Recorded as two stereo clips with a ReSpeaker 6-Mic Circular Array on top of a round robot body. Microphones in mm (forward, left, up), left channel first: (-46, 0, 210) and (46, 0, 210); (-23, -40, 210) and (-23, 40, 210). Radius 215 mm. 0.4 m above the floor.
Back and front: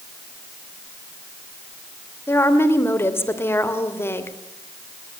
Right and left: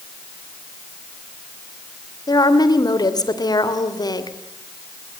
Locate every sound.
2.3 s a woman speaking: 120° right, 3 m